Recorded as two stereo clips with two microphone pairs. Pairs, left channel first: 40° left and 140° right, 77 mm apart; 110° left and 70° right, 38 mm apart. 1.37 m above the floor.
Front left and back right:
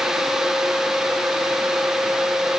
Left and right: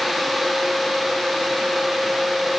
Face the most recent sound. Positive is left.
No sound to turn to.